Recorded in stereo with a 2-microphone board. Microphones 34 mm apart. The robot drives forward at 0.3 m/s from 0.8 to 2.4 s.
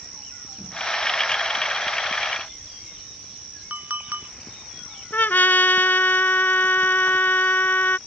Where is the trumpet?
75° left (ahead or behind).